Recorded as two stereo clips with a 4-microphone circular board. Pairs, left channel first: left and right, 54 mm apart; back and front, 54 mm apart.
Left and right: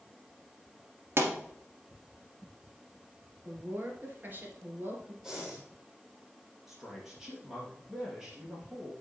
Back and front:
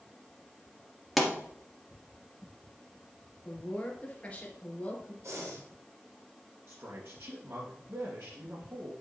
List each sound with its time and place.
1.2 s a pop: 90° right, 2.5 m
3.5 s a woman speaking: 125° right, 2 m
5.2 s breathing: 5° right, 4.5 m
6.7 s a man speaking: 10° right, 3 m